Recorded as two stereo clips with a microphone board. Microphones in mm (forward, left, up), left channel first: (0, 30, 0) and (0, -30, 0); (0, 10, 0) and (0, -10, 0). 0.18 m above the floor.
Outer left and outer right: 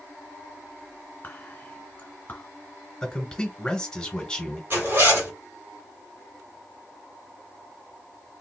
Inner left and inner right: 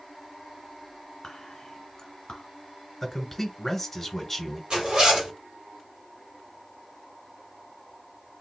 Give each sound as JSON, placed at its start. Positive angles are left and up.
{"t": 1.2, "sound": "whispering", "side_deg": 30, "distance_m": 1.5}
{"t": 3.0, "sound": "a man speaking", "side_deg": 10, "distance_m": 1.2}
{"t": 4.7, "sound": "a zipper", "side_deg": -40, "distance_m": 1.8}